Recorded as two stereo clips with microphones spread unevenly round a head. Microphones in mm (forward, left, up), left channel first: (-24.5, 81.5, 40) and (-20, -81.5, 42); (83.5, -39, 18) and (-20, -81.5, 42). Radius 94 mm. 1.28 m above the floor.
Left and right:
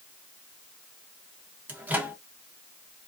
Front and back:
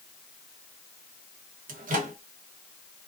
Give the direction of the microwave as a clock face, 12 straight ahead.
6 o'clock.